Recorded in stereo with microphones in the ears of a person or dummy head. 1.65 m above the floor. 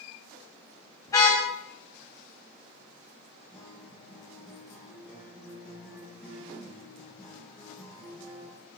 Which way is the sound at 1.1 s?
15° left (ahead or behind).